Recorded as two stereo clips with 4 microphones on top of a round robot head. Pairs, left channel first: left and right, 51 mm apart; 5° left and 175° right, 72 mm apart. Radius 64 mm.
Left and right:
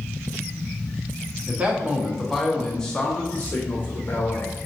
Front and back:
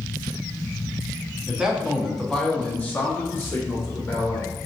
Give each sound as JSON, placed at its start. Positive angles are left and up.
{"t": 1.5, "sound": "a man speaking", "azimuth_deg": -115, "distance_m": 0.9}